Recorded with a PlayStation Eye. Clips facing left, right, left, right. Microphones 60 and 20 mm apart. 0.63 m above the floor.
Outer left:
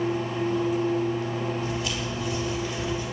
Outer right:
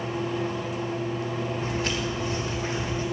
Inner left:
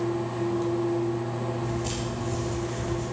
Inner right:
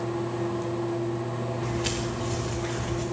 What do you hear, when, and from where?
1.6 s footsteps: 55° right (ahead or behind), 5.5 m; by 3.0 s 45° right (ahead or behind), 6 m